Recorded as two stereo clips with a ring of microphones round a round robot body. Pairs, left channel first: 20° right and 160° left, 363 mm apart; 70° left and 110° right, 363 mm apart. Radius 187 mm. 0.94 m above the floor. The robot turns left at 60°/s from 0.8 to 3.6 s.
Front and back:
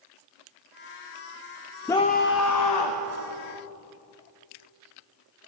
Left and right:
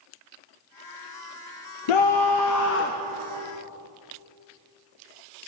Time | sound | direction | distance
1.9 | a scream | 60° left | 0.7 m